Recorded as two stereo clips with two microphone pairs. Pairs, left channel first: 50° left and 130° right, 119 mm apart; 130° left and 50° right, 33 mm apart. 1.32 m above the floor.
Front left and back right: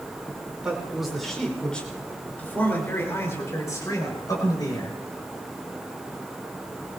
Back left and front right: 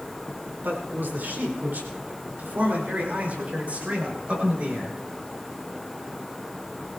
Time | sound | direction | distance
0.3 | a man speaking | 50° right | 5 m